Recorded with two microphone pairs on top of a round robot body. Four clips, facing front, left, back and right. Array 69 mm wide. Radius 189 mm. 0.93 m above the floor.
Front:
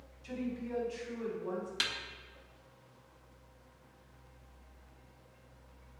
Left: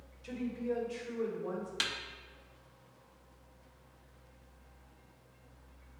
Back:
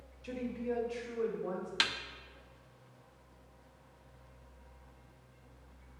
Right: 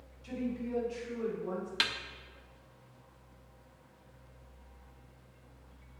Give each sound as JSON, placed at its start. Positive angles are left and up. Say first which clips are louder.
{"t": 0.2, "sound": "a woman speaking", "louder": "even, back 2 dB", "azimuth_deg": 170, "distance_m": 1.7}
{"t": 1.8, "sound": "a snare drum", "louder": "right 5 dB, back 8 dB", "azimuth_deg": -140, "distance_m": 0.7}